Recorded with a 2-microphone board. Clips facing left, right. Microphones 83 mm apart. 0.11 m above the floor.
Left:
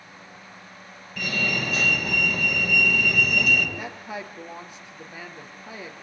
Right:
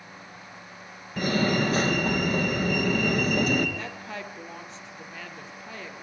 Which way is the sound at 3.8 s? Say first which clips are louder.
Left 2 dB; 10° left (ahead or behind).